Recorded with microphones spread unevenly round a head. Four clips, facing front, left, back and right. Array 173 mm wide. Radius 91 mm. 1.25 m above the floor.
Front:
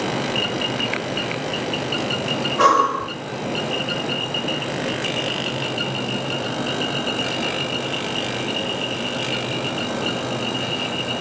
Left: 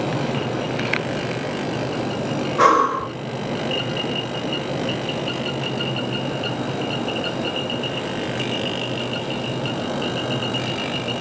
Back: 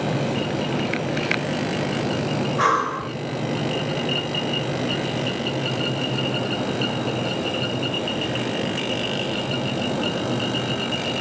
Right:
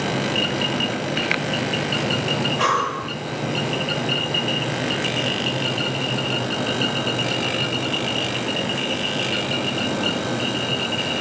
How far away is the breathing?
About 1.7 m.